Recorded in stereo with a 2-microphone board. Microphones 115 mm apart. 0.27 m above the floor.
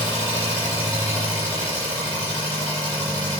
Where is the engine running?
45° left (ahead or behind), 4.5 m.